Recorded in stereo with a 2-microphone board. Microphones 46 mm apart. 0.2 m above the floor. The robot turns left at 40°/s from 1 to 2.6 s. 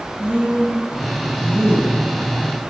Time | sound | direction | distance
0.2 | a woman speaking | 45° right | 1.8 m